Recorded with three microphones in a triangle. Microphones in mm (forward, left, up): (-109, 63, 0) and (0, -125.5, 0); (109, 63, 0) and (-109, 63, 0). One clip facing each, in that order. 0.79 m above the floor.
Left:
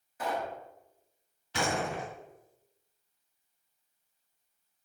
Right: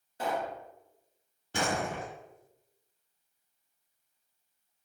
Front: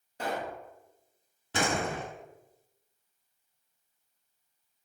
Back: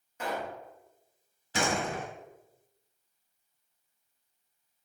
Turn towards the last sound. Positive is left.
turn(degrees=-20)